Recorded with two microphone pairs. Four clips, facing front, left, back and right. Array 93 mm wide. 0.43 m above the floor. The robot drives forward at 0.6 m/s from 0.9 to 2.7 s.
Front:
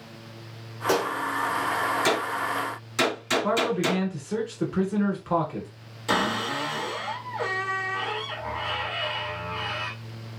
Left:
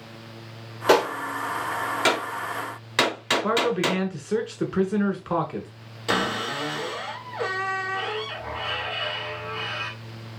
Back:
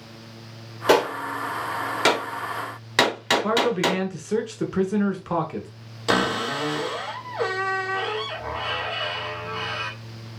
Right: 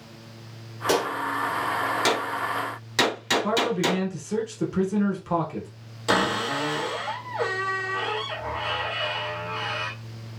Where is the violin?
I don't hear a violin.